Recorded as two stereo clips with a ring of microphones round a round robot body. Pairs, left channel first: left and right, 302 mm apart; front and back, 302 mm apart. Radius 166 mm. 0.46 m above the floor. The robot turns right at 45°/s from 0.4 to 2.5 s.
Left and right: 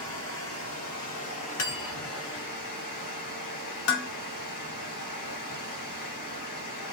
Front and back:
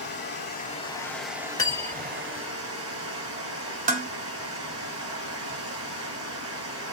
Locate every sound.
0.0 s running water: 50° left, 1.7 m; by 7.0 s 145° left, 1.7 m
1.6 s cutlery clinking: 75° left, 1.2 m; by 2.1 s 100° left, 1.2 m
3.9 s dishes clattering: 125° left, 0.5 m